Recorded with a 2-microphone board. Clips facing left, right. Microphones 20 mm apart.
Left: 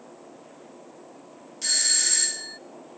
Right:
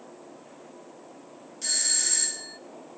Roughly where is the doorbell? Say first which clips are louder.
Left 4 dB; centre.